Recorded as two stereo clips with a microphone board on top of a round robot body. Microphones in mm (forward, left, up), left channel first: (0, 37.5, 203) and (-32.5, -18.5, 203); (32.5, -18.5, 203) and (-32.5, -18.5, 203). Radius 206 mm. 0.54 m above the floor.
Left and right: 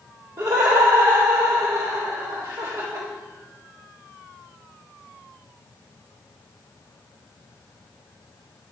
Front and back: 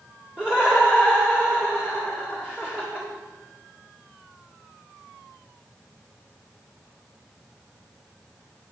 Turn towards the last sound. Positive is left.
turn(degrees=-105)